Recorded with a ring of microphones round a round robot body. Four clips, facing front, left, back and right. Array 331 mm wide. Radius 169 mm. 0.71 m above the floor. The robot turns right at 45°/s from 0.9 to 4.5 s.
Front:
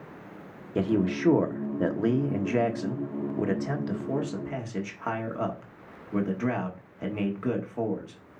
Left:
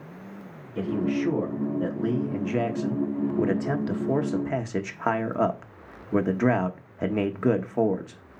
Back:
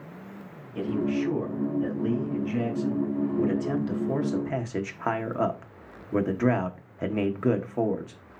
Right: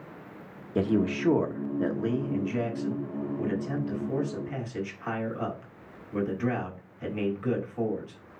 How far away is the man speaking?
About 1.4 m.